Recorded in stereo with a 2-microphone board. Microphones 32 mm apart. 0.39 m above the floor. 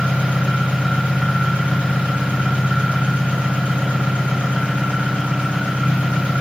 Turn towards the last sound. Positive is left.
turn(degrees=-50)  # may be behind; listen again after turning